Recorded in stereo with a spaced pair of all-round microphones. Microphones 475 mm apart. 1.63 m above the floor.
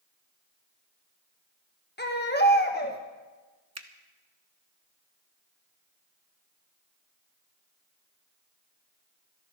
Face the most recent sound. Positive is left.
turn(degrees=-35)  # may be behind; listen again after turning